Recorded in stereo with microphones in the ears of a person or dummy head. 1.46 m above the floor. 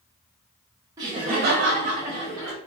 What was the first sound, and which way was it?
Laughter, 20° right (ahead or behind).